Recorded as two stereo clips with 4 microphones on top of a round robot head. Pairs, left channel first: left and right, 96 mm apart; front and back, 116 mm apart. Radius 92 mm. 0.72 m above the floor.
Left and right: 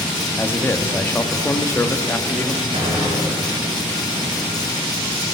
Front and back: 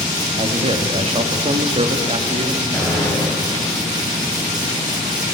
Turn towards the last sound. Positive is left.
turn(degrees=-90)